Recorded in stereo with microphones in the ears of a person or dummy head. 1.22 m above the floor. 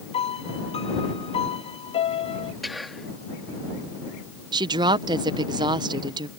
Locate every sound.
0.1 s a piano: 30° left (ahead or behind)
2.6 s whispering: centre (ahead or behind)
4.5 s a woman speaking: 20° right (ahead or behind)